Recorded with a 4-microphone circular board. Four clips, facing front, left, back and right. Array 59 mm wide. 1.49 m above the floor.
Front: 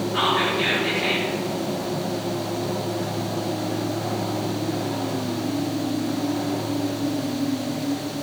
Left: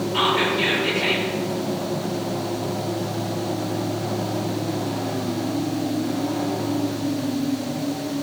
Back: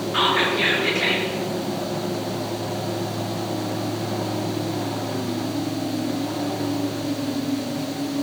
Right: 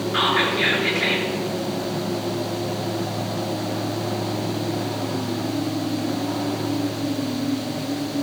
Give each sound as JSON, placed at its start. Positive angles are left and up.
{"t": 0.1, "sound": "whispering", "azimuth_deg": -115, "distance_m": 4.5}